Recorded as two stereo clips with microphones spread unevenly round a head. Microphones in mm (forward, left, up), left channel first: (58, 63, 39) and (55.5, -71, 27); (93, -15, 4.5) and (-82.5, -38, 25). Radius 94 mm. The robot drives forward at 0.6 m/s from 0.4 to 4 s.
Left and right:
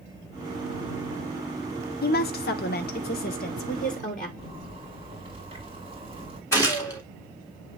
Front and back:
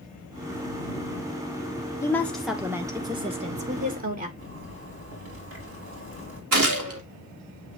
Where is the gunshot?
165° left, 2 m.